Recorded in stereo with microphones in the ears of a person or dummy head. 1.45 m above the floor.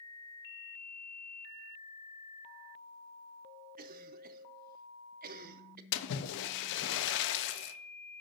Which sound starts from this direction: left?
A splash, at 5.9 s.